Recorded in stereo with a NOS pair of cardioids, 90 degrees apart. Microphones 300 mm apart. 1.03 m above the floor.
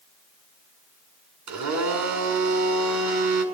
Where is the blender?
65° right, 7.5 m.